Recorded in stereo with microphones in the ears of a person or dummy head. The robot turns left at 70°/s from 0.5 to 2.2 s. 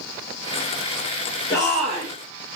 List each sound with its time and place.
1.5 s a shout: 30° left, 0.6 m; by 2.1 s 15° right, 0.6 m